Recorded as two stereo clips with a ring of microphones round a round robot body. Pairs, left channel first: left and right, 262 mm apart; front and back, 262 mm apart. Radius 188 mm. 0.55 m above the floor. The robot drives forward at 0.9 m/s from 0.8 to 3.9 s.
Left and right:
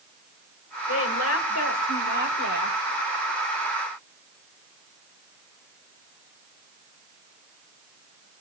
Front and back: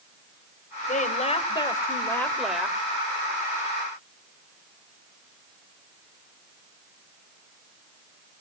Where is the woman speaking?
60° left, 3 m; by 2.8 s 95° left, 2.5 m.